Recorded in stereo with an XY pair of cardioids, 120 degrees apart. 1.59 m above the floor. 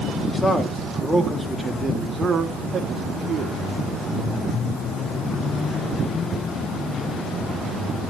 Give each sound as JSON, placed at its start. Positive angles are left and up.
{"t": 0.3, "sound": "a man speaking", "azimuth_deg": 15, "distance_m": 3.0}